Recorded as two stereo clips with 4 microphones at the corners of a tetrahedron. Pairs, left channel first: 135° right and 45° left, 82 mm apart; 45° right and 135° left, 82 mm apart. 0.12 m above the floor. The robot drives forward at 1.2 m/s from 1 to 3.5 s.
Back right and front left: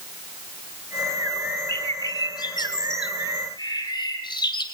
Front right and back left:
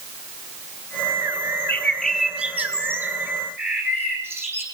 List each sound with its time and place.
1.7 s a bird: 95° right, 0.9 m; by 4.6 s 165° right, 2.5 m